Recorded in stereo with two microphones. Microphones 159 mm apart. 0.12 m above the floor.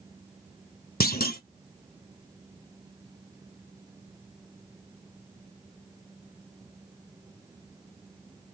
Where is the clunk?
70° left (ahead or behind), 1.1 m.